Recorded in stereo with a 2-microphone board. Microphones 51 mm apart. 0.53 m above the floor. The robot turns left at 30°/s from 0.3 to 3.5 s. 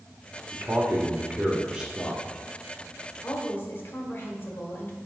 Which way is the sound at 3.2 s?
40° left (ahead or behind).